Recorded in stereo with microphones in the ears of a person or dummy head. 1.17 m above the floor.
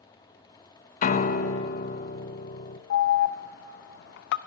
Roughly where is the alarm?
Left.